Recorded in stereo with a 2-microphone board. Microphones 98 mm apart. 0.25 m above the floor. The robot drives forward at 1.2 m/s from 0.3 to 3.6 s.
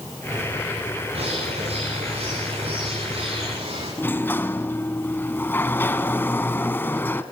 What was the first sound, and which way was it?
A bird, 90° right.